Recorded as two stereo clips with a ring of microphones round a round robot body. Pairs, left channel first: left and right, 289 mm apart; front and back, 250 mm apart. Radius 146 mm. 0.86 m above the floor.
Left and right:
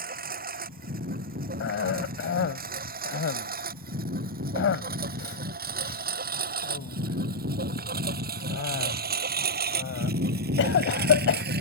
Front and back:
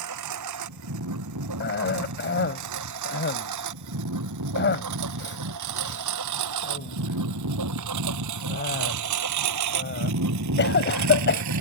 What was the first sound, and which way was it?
A lawn mower, 150° right.